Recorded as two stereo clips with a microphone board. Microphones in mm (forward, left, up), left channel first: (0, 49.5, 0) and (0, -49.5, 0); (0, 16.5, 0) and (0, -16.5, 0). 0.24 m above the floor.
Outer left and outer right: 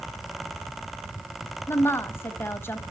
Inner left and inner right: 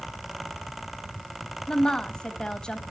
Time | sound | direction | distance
1.7 | a woman speaking | 25° left (ahead or behind) | 1.1 m